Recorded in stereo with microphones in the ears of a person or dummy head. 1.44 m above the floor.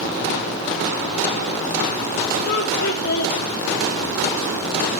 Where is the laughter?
55° left (ahead or behind), 4 m.